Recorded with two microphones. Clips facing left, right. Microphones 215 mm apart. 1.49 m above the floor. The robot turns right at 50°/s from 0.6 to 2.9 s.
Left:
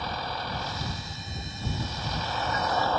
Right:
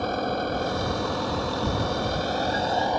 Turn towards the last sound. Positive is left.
turn(degrees=-15)